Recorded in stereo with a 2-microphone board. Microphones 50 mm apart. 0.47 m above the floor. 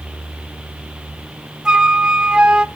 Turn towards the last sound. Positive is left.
turn(degrees=-15)  # may be behind; listen again after turning